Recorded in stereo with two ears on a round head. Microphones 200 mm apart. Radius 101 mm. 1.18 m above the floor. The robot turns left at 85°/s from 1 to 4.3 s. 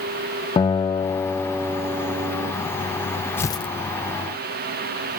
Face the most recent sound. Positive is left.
turn(degrees=90)